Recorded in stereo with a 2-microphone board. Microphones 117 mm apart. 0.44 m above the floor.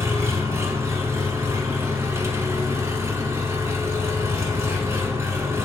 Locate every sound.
0.0 s an engine running: 25° right (ahead or behind), 1.0 m